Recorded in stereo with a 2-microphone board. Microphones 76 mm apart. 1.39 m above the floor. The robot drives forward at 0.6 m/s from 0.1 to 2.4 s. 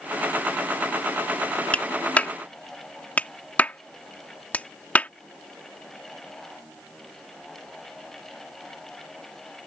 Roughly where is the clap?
Centre.